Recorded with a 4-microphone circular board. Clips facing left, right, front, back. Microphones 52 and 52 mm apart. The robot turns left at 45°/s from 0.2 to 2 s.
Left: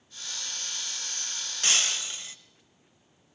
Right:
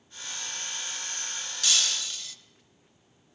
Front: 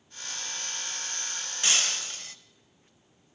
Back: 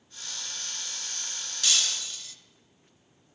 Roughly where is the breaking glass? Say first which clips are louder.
Left 1 dB, front 1 dB; ahead left.